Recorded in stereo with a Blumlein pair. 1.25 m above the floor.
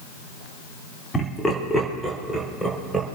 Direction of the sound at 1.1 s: 10° left.